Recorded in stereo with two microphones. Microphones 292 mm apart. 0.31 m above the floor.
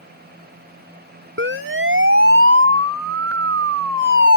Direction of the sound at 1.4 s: 40° right (ahead or behind).